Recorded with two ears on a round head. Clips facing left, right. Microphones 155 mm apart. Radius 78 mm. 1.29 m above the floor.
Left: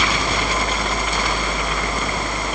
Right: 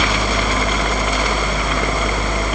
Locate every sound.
Only background noise.